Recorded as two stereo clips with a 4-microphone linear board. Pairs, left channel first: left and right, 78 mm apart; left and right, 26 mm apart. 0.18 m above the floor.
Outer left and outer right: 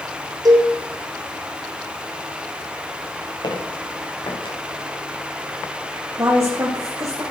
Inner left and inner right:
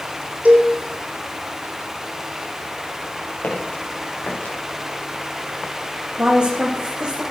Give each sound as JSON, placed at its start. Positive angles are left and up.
{"t": 0.5, "sound": "a cowbell", "side_deg": -55, "distance_m": 3.5}
{"t": 3.4, "sound": "footsteps", "side_deg": 75, "distance_m": 7.5}
{"t": 6.2, "sound": "a woman speaking", "side_deg": -40, "distance_m": 9.0}